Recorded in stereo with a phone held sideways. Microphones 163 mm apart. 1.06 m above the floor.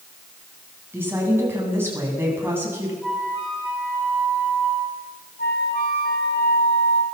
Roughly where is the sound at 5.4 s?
Left.